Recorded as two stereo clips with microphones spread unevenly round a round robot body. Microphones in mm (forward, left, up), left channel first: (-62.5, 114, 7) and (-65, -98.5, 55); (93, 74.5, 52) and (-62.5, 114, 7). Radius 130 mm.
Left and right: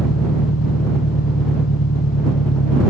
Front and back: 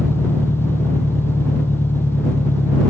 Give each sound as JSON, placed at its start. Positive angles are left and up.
{"t": 0.0, "sound": "an engine running", "azimuth_deg": 60}